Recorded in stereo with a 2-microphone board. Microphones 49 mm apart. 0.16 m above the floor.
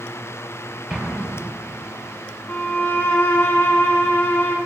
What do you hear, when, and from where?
0.9 s an explosion: 15° right (ahead or behind), 4 m
2.5 s a violin: 30° left (ahead or behind), 7.5 m